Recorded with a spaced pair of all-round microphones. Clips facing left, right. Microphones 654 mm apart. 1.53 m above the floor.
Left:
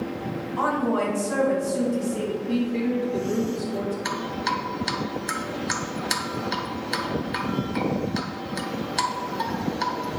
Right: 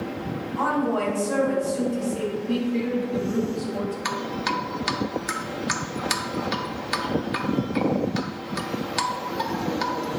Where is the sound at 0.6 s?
75° left (ahead or behind), 3 m.